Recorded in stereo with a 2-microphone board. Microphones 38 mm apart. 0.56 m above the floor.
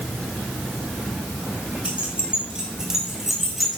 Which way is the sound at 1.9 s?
35° right (ahead or behind).